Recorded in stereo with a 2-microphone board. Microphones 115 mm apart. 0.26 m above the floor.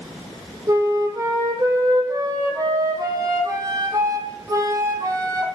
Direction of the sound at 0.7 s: 30° right (ahead or behind).